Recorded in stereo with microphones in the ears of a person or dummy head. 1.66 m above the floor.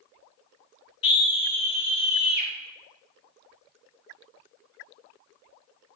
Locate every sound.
1.0 s a scream: 30° left (ahead or behind), 3 m